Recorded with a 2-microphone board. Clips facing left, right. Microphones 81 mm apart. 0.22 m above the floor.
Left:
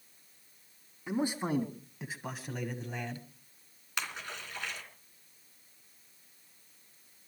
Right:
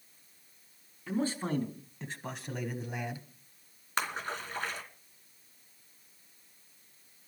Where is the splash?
40° right (ahead or behind), 2.5 m.